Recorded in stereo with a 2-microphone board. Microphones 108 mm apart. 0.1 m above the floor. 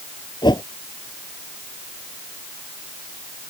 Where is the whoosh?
45° left (ahead or behind).